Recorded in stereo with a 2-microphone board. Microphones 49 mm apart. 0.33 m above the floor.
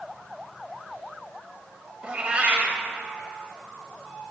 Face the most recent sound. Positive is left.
turn(degrees=-30)  # may be behind; listen again after turning